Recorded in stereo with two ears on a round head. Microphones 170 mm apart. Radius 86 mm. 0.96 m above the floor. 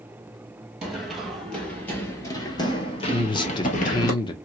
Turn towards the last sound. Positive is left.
turn(degrees=25)  # may be behind; listen again after turning